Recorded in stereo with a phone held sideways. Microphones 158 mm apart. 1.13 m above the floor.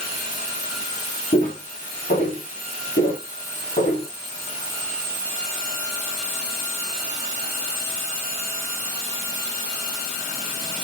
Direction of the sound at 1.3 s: 50° left (ahead or behind).